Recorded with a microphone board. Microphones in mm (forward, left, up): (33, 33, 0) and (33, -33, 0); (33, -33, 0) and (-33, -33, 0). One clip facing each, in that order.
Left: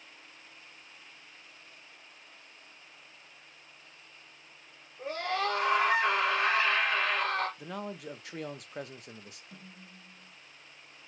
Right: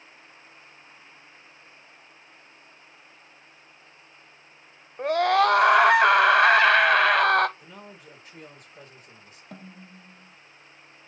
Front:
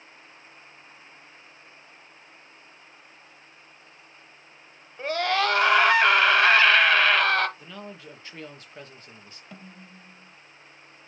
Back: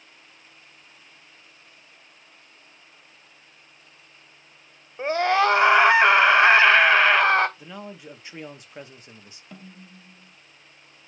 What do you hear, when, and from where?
5.0 s a scream: 110° right, 0.8 m
7.6 s a man speaking: 105° left, 0.9 m
9.5 s a snare drum: 90° right, 0.7 m